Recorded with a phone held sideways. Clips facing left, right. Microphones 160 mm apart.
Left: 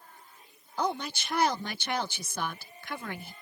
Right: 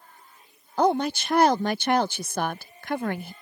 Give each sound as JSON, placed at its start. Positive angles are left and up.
{"t": 0.8, "sound": "a woman speaking", "side_deg": -55}